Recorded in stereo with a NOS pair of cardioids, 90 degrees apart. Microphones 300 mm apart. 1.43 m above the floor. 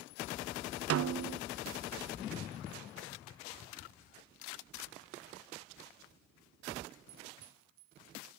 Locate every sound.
0.9 s a snare drum: 50° right, 0.6 m